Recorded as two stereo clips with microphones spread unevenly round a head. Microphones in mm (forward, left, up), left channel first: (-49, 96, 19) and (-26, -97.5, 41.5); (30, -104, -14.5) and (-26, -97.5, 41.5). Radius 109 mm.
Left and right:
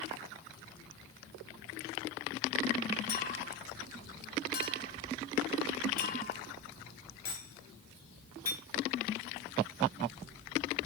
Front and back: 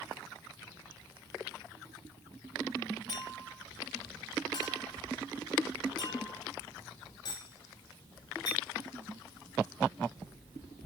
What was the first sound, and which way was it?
A clink, 40° left.